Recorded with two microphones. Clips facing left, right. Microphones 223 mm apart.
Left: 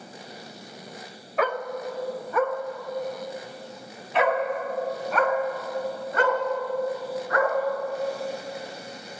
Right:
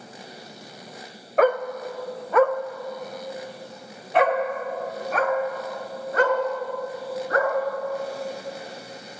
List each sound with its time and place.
1.4 s a dog barking: 50° right (ahead or behind), 0.7 m; by 7.5 s 40° right (ahead or behind), 3 m